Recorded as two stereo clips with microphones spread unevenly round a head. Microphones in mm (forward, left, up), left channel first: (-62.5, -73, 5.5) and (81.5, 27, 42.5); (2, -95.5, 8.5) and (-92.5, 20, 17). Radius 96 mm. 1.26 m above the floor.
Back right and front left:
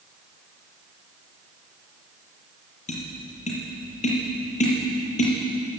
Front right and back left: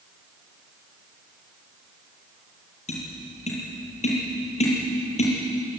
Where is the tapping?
95° right, 8 m.